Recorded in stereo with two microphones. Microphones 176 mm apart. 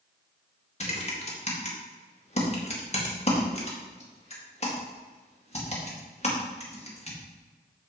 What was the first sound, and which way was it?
Typing on a keyboard, 40° left (ahead or behind).